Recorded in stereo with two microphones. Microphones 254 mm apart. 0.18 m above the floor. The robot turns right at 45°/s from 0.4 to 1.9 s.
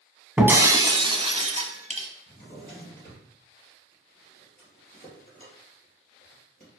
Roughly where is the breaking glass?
Centre.